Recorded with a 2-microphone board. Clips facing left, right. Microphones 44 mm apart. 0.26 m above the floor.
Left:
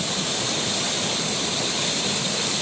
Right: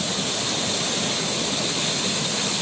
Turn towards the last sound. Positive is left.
No sound to turn to.